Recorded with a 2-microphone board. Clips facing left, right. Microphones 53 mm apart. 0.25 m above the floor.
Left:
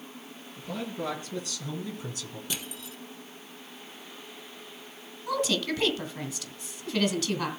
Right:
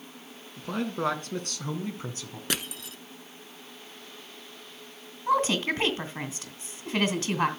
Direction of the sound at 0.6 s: 65° right (ahead or behind).